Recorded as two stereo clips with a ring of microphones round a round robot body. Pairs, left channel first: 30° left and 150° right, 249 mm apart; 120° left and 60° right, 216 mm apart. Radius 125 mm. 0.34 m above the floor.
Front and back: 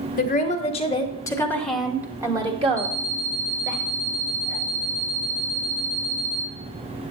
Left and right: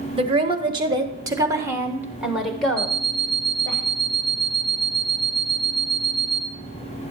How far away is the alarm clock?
About 1.3 m.